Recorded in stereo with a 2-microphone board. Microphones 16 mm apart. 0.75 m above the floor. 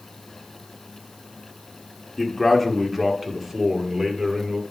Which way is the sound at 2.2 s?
5° right (ahead or behind).